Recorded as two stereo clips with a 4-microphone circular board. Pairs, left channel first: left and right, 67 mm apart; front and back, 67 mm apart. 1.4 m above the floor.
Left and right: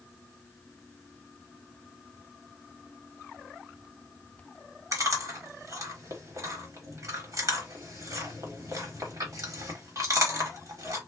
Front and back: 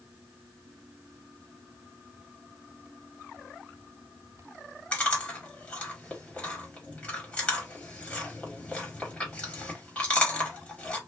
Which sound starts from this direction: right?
Chewing, at 4.9 s.